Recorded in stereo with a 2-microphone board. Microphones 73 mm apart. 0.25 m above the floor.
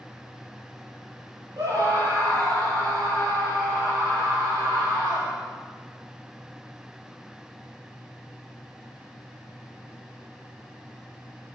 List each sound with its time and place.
1.6 s a scream: 55° right (ahead or behind), 7.5 m; by 5.4 s 80° right, 11.5 m